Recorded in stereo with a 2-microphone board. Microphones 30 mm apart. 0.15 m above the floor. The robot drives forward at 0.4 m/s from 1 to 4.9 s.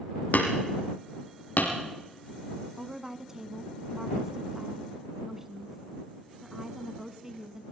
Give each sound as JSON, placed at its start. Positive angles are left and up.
{"t": 0.3, "sound": "hammering", "side_deg": 80, "distance_m": 5.0}
{"t": 2.8, "sound": "a woman speaking", "side_deg": -15, "distance_m": 1.1}